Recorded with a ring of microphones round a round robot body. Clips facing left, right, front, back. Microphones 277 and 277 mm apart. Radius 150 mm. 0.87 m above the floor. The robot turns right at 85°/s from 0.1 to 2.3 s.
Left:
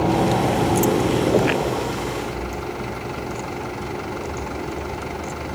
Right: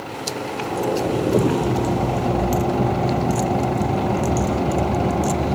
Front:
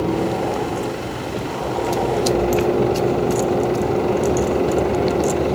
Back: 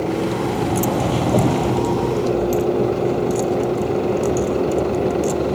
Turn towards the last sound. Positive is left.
turn(degrees=-90)